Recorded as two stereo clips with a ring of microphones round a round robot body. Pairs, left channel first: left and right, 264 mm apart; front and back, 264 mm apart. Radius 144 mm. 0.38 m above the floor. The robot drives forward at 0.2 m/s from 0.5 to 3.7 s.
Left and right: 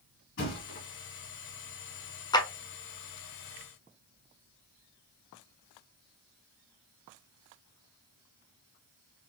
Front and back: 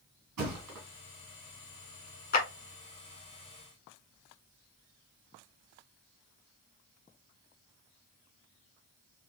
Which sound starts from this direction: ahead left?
A clap, at 2.3 s.